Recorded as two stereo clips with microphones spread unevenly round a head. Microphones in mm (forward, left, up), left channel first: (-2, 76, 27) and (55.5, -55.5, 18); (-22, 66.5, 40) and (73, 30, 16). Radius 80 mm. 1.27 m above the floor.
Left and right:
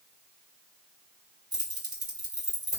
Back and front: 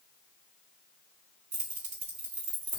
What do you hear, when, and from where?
1.5 s keys jangling: 5° right, 3 m